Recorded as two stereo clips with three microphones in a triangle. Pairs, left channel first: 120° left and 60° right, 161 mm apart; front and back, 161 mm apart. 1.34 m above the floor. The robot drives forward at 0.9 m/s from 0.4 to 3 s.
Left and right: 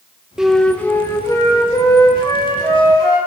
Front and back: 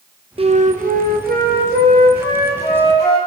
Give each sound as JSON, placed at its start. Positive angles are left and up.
{"t": 0.4, "sound": "a flute", "azimuth_deg": -145, "distance_m": 0.6}